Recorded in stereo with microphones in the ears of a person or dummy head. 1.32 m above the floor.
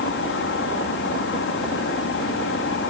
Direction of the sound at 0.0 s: 60° left (ahead or behind).